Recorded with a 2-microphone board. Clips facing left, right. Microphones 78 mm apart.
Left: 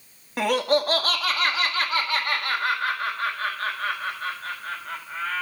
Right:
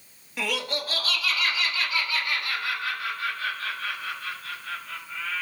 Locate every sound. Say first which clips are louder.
0.4 s laughter: left 9 dB; 50° left (ahead or behind), 1.5 m; by 5.4 s 55° left (ahead or behind), 5.5 m